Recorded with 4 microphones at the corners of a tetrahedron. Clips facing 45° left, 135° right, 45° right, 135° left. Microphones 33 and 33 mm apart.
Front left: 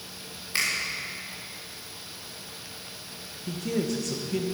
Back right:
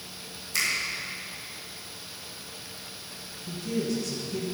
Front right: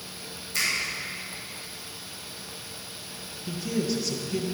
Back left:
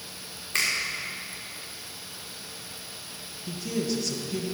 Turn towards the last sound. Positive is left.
turn(degrees=40)